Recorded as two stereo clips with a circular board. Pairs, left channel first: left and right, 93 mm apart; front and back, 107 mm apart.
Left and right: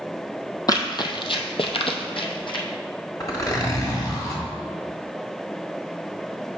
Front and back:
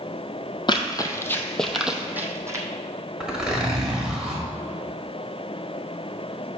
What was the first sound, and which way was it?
Running footsteps, 45° left.